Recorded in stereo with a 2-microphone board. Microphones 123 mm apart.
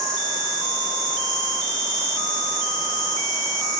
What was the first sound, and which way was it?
An insect, 35° right (ahead or behind).